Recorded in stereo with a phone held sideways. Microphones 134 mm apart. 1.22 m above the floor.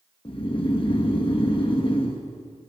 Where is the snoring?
40° left (ahead or behind), 1.0 m.